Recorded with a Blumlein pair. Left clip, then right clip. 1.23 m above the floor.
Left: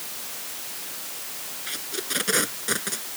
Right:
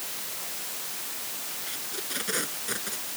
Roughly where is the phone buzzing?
No phone buzzing in this recording.